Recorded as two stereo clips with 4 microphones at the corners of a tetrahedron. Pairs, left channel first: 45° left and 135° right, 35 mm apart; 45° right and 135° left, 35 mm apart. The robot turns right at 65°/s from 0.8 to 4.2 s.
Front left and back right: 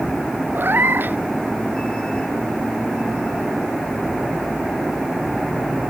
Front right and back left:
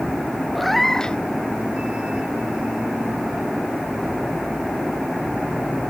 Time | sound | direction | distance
0.6 | a cat meowing | 130° right | ?